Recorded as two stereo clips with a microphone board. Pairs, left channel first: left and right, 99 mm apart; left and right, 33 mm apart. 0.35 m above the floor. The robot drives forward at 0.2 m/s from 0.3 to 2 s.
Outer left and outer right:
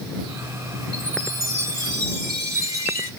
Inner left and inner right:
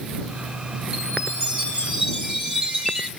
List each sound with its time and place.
0.9 s a chime: 40° right (ahead or behind), 1.7 m; by 3.1 s 35° right (ahead or behind), 1.8 m